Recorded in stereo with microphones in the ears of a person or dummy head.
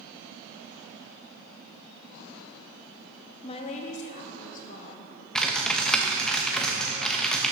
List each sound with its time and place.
3.4 s a woman speaking: 30° left (ahead or behind), 0.6 m; by 5.1 s 50° left (ahead or behind), 1.7 m
5.3 s typing on a keyboard: centre (ahead or behind), 0.8 m